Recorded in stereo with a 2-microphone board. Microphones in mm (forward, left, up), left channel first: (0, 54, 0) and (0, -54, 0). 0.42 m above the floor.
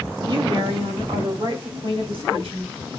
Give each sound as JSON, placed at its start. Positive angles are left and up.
{"t": 0.2, "sound": "a woman speaking", "side_deg": -50, "distance_m": 2.0}